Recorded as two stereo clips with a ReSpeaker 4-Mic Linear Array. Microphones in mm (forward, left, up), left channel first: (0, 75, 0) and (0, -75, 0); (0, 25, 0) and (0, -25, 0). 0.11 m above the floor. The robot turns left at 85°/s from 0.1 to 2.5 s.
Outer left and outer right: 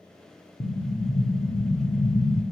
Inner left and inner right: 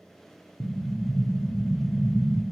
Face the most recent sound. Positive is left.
turn(degrees=-5)